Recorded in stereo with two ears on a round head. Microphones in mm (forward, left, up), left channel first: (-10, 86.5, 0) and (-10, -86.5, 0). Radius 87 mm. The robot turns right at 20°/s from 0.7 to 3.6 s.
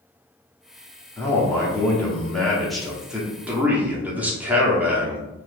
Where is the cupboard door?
I don't hear a cupboard door.